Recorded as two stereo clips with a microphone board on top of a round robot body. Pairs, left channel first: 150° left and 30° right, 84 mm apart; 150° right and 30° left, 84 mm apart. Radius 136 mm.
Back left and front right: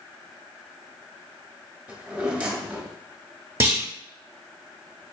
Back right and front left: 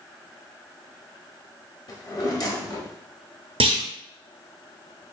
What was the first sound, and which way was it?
A drawer, 105° right.